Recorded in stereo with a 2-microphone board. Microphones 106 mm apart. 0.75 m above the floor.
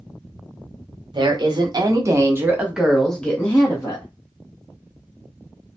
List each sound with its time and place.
1.1 s a woman speaking: 45° right (ahead or behind), 1.0 m; by 4.0 s 30° left (ahead or behind), 0.9 m